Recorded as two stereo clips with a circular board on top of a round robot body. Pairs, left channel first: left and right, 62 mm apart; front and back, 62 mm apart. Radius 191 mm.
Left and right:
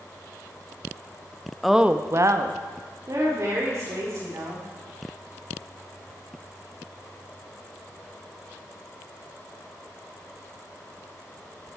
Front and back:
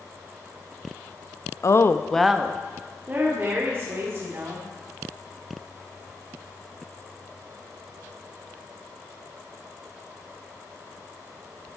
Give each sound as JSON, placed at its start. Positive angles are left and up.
{"t": 1.6, "sound": "a woman speaking", "azimuth_deg": 0, "distance_m": 1.0}